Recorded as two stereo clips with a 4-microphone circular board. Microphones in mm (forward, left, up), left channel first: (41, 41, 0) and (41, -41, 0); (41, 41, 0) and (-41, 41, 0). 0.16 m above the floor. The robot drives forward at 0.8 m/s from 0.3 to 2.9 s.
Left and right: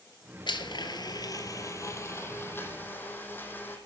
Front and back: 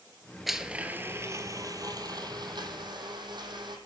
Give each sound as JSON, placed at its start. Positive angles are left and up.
{"t": 0.5, "sound": "a blender", "azimuth_deg": 95, "distance_m": 1.0}